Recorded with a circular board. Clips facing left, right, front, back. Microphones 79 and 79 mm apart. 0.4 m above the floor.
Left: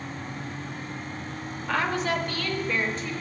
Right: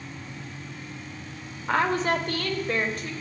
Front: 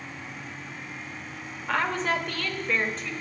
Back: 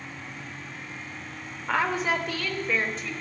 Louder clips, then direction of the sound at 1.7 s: Right 3 dB, back 1 dB; 110° right.